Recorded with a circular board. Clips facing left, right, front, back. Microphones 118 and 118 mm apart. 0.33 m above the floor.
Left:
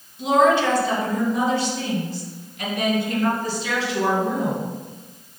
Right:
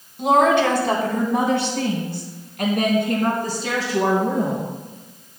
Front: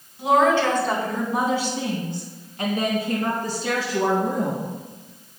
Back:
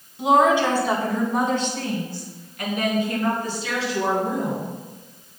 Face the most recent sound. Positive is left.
turn(degrees=-35)